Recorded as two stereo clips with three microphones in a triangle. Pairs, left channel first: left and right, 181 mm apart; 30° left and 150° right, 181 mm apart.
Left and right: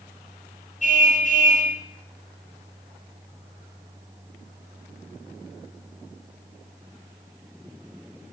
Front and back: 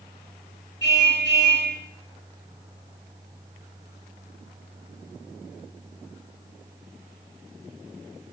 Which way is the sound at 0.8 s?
40° left.